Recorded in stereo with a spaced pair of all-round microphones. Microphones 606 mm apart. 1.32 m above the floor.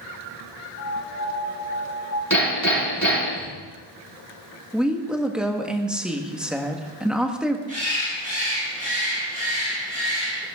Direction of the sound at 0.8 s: 20° right (ahead or behind).